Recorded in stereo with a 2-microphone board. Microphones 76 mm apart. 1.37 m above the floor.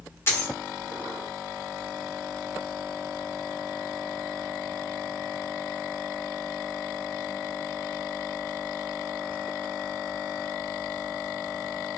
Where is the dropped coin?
30° left (ahead or behind), 0.9 m.